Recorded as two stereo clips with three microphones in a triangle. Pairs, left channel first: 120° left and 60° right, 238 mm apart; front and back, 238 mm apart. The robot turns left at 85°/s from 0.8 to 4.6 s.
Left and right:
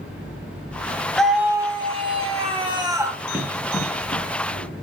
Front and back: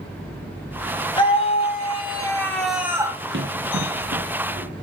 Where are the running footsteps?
140° right, 2.5 m; by 4.8 s 140° left, 4 m.